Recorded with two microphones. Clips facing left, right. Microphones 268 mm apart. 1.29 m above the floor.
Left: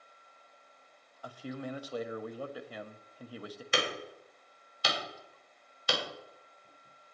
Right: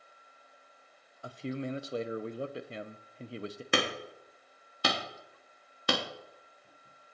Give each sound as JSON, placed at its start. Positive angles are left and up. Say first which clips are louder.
{"t": 1.2, "sound": "a man speaking", "louder": "right 4 dB", "side_deg": -25, "distance_m": 0.6}
{"t": 3.7, "sound": "hammering", "louder": "right 2 dB", "side_deg": -60, "distance_m": 1.3}